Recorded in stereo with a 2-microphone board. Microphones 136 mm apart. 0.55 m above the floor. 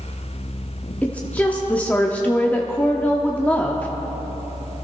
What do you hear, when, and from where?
1.0 s a woman speaking: 10° left (ahead or behind), 1.0 m